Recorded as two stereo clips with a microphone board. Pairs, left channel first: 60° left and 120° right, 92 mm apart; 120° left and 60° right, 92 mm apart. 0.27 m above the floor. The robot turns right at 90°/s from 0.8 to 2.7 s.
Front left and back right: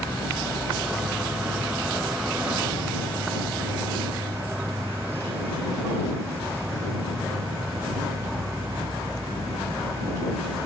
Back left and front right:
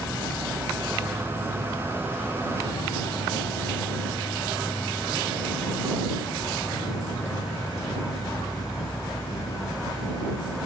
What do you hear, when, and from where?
0.0 s an insect: straight ahead; by 10.7 s 170° left